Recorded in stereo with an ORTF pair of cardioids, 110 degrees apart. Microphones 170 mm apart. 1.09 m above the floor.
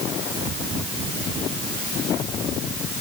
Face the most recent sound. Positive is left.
No sound to turn to.